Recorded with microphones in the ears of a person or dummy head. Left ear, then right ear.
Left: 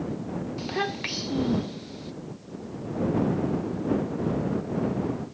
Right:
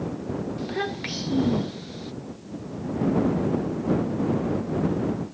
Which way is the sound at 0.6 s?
25° left (ahead or behind).